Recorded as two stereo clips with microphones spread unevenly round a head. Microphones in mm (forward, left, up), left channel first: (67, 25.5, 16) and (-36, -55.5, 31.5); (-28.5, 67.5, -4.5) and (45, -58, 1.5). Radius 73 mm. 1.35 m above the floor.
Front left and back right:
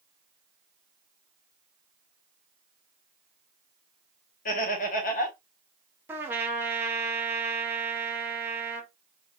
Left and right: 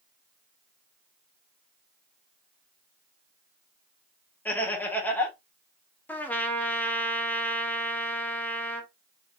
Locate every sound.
4.5 s laughter: 45° left, 1.6 m
6.1 s a trumpet: 175° right, 0.7 m